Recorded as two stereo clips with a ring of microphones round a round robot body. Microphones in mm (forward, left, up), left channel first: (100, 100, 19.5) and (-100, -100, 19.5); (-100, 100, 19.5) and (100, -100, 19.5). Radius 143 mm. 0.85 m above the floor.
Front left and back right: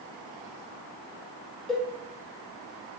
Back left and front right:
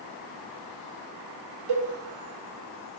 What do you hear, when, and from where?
1.7 s a cowbell: 45° right, 1.0 m